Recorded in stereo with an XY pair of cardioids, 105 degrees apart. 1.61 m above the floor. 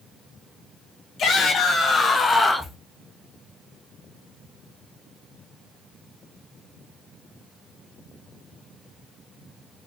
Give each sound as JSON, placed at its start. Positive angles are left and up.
{"t": 1.2, "sound": "a shout", "azimuth_deg": 60, "distance_m": 2.5}